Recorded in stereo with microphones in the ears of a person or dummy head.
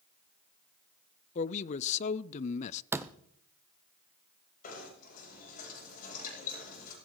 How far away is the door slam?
About 0.5 m.